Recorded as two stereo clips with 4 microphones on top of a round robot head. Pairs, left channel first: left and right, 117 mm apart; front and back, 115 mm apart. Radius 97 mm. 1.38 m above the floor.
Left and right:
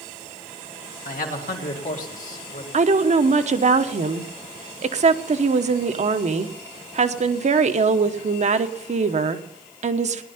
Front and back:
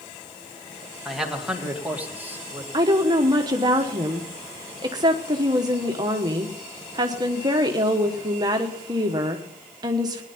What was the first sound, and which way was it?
A man speaking, 90° left.